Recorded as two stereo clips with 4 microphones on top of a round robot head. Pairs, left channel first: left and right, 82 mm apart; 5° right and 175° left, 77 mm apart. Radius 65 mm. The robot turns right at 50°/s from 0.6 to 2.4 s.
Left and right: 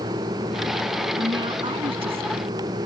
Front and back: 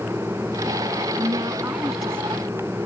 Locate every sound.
1.2 s a woman speaking: 135° right; by 2.5 s 75° right